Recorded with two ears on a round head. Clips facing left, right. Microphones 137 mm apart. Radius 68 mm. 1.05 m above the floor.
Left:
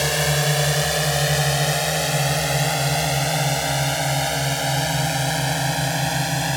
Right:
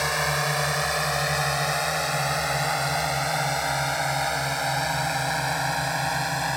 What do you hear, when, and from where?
0.0 s a drone: 30° left (ahead or behind)